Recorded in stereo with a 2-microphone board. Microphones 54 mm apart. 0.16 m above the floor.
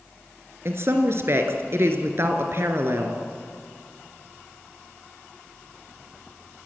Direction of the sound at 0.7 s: 55° right (ahead or behind).